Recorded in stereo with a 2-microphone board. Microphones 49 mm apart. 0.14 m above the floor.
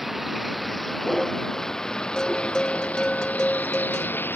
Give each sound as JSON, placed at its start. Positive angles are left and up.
{"t": 0.0, "sound": "a vehicle", "side_deg": -5}
{"t": 2.2, "sound": "a bell", "side_deg": 15}